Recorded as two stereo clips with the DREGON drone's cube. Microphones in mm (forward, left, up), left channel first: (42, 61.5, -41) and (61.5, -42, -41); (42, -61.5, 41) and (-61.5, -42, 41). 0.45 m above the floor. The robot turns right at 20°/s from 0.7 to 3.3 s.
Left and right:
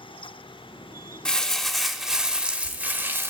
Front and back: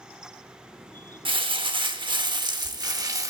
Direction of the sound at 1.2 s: Straight behind.